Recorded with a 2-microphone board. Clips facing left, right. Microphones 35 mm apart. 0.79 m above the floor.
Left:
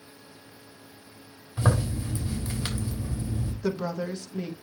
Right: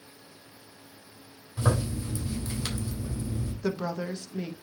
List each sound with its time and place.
1.6 s a zipper: 25° left (ahead or behind), 3.5 m
3.6 s a woman speaking: 5° right (ahead or behind), 1.0 m